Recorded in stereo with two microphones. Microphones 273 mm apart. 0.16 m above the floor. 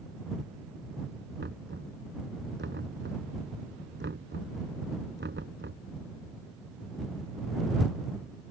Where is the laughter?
No laughter in this recording.